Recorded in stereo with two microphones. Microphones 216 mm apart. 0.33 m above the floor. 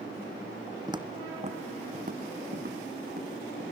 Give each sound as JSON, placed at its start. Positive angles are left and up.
{"t": 0.9, "sound": "footsteps", "side_deg": -20, "distance_m": 0.9}